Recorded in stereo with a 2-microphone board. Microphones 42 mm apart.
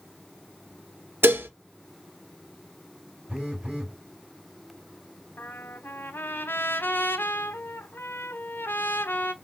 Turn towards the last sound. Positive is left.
turn(degrees=65)  # may be behind; listen again after turning